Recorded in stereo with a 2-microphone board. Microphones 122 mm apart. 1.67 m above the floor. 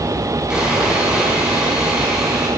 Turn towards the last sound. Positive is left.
turn(degrees=-10)  # may be behind; listen again after turning